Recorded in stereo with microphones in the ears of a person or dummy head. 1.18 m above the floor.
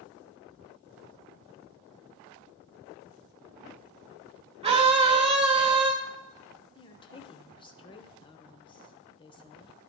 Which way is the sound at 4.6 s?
30° right (ahead or behind).